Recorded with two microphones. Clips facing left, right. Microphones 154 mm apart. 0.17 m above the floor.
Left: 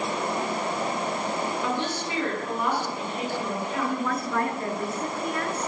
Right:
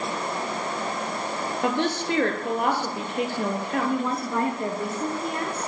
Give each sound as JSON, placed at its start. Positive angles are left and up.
{"t": 1.6, "sound": "a woman speaking", "side_deg": -65, "distance_m": 3.5}
{"t": 3.8, "sound": "a woman speaking", "side_deg": -25, "distance_m": 2.5}